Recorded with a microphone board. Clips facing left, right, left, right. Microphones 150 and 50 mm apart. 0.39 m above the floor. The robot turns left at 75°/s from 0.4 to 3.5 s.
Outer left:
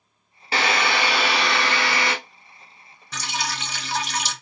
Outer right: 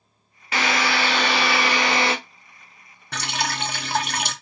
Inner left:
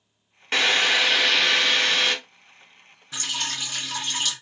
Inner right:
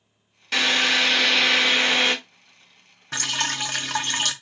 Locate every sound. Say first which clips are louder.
0.5 s a drill: even, even; 65° left, 1.1 m; by 2.1 s 55° right, 1.1 m
3.1 s dripping: outer right 2 dB, inner right 4 dB; 65° right (ahead or behind), 0.6 m; by 4.3 s 55° right (ahead or behind), 0.6 m